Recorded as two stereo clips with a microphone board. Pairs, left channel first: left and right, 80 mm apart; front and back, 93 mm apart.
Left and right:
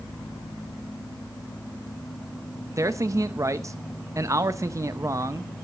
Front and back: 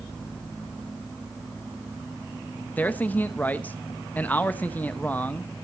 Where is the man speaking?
65° right, 0.7 m.